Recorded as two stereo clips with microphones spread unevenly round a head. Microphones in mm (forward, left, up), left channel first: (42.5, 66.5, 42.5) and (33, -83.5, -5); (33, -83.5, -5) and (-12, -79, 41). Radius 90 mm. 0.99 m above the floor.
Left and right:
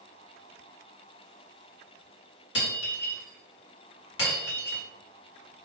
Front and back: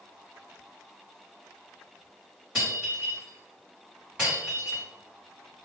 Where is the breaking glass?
100° left, 1.3 m.